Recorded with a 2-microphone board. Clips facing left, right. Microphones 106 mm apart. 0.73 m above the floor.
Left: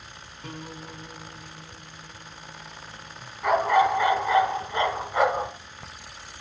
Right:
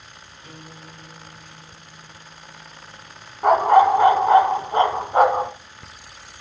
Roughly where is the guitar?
Left.